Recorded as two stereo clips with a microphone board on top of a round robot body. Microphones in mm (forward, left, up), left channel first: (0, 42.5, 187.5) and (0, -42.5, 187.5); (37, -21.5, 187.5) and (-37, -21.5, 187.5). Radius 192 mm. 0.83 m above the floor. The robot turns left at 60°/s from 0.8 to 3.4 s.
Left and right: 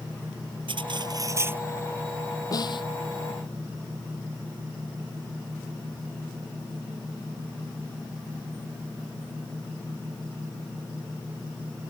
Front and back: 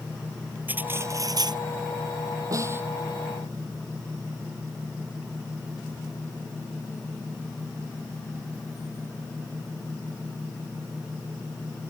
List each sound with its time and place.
0.7 s cutlery clinking: 115° right; by 1.6 s 160° right
2.5 s a snare drum: 135° left; by 2.9 s 115° left